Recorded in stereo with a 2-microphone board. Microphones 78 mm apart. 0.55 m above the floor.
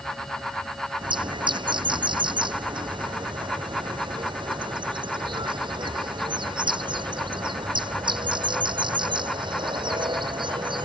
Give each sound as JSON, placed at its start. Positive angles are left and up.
{"t": 1.0, "sound": "a bird", "side_deg": -85}